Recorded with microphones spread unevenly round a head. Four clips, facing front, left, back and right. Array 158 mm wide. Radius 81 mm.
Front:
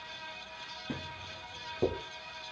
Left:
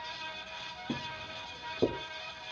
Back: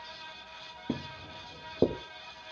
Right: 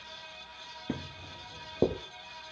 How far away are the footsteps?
About 1.4 m.